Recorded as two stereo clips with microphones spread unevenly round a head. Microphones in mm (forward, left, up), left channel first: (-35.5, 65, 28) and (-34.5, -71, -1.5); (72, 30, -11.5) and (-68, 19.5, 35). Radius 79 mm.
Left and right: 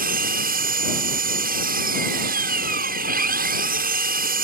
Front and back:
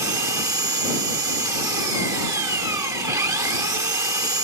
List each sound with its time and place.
0.0 s an engine running: 110° right